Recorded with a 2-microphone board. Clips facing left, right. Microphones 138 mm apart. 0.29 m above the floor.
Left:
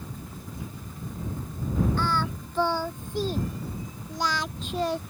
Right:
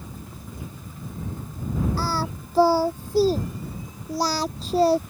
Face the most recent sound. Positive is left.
turn(degrees=-35)  # may be behind; listen again after turning